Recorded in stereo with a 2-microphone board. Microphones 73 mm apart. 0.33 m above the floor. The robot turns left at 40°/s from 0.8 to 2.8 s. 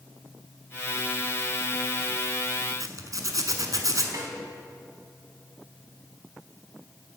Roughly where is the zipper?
Right.